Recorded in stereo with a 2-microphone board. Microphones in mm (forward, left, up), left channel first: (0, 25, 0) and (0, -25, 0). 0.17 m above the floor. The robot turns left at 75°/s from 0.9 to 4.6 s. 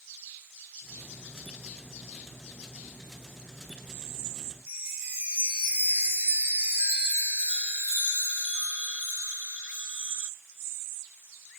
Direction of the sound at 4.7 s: 20° right (ahead or behind).